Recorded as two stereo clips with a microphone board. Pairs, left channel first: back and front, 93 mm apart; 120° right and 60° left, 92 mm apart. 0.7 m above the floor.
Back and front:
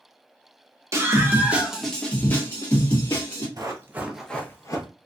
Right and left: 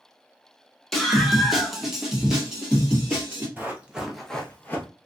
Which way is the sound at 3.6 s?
Straight ahead.